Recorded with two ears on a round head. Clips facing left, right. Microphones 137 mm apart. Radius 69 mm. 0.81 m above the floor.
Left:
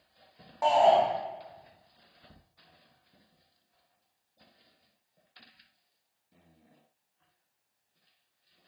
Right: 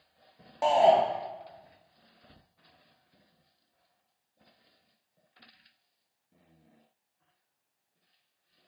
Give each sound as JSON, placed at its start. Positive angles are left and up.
{"t": 0.6, "sound": "a shout", "side_deg": -25, "distance_m": 0.7}